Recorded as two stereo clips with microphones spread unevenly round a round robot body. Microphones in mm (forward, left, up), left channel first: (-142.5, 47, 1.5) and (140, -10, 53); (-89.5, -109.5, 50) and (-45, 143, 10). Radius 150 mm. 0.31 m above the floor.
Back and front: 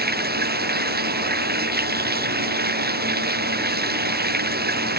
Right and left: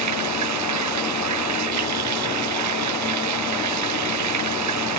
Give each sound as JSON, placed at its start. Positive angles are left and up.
{"t": 0.0, "sound": "running water", "azimuth_deg": 45}